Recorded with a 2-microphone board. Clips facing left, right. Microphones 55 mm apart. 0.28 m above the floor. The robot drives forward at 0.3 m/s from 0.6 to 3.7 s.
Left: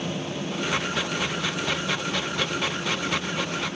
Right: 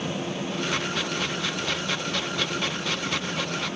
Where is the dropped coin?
I don't hear a dropped coin.